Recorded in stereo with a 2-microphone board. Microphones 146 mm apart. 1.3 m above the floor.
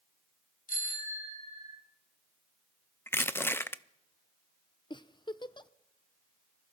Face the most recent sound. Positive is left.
turn(degrees=30)  # may be behind; listen again after turning